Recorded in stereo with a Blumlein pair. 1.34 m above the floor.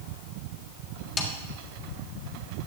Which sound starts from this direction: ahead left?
A snare drum, at 1.2 s.